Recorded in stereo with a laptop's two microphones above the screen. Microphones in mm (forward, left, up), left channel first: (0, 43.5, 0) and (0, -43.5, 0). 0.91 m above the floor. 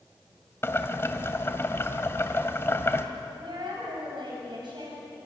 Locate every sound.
0.6 s boiling: 30° left (ahead or behind), 2 m
3.4 s a woman speaking: 65° right (ahead or behind), 6.5 m